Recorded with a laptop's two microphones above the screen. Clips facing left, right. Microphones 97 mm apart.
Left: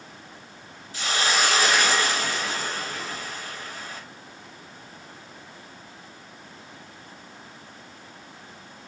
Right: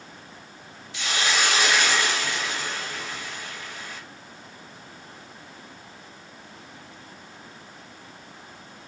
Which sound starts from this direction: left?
A hiss, at 0.9 s.